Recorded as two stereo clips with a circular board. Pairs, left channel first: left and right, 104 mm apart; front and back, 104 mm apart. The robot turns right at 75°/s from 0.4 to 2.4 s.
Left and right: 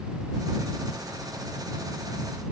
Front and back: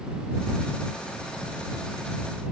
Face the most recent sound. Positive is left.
No sound to turn to.